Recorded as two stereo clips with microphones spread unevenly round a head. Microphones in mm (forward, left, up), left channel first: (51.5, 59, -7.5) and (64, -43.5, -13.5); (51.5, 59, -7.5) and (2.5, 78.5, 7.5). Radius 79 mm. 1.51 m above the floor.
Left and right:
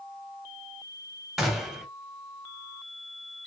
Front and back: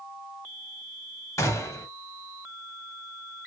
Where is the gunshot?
5° left, 0.9 m.